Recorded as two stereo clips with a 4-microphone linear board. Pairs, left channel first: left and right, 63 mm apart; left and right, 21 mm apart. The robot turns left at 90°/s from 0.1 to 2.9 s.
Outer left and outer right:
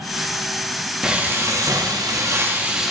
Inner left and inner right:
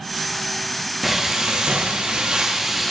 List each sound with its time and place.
1.0 s frying: 10° right, 0.8 m; by 2.9 s straight behind, 0.8 m